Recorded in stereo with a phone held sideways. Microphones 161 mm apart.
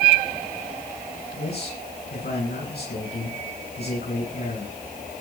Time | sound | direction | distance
1.3 | a man speaking | 85° left | 9.5 m